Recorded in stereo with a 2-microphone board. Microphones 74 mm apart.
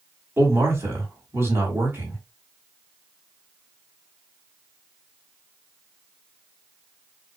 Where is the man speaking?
35° right (ahead or behind), 2.0 m.